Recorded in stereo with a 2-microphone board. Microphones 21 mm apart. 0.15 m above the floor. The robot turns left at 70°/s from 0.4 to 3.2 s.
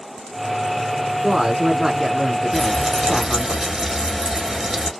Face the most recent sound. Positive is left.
turn(degrees=-40)